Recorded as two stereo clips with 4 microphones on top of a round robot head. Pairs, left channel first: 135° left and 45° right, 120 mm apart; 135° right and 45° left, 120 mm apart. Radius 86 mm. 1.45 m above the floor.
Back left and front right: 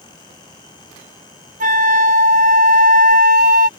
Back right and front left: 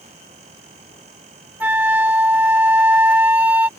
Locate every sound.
1.6 s a flute: 30° right